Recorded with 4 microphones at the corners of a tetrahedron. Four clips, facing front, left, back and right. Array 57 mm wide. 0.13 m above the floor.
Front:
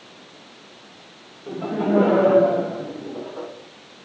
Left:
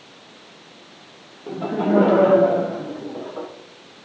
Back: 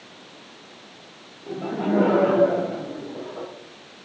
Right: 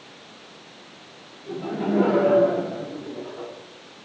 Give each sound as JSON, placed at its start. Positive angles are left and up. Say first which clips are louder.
{"t": 1.5, "sound": "laughter", "louder": "left 5 dB, front 2 dB", "azimuth_deg": 75, "distance_m": 6.5}